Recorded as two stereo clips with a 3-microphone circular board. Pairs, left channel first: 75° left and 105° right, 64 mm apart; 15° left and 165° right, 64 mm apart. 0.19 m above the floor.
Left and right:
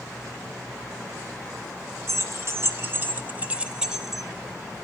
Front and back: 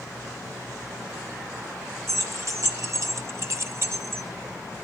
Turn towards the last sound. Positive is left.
turn(degrees=165)